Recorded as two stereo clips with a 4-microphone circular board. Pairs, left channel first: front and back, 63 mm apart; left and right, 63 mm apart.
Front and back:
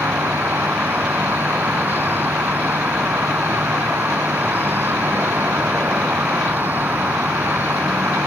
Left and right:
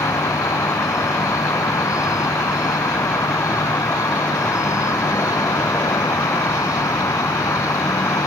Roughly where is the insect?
Behind left.